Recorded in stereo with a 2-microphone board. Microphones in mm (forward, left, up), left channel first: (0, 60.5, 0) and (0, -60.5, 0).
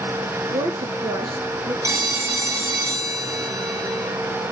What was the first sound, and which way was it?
A woman speaking, 60° right (ahead or behind).